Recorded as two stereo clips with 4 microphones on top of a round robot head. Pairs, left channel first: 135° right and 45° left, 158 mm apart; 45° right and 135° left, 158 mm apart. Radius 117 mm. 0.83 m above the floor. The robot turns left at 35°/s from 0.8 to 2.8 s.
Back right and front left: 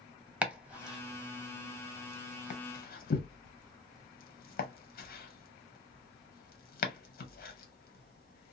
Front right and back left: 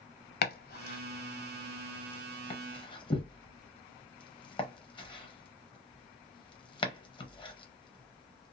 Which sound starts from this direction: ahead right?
Chopping, at 0.4 s.